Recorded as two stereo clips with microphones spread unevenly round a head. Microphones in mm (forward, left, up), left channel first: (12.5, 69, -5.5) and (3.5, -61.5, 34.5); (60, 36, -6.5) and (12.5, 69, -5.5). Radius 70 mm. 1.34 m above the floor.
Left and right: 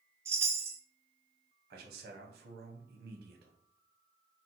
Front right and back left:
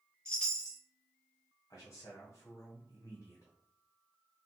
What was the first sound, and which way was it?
A chime, 100° right.